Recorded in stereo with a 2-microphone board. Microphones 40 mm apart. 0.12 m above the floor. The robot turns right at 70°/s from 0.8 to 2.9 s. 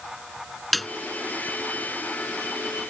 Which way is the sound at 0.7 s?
5° left (ahead or behind).